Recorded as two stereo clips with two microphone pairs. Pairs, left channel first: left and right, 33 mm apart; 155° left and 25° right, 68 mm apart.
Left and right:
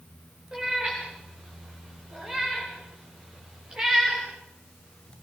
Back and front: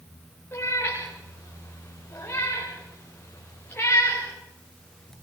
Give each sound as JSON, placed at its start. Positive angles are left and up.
{"t": 0.5, "sound": "a cat meowing", "azimuth_deg": -150, "distance_m": 10.0}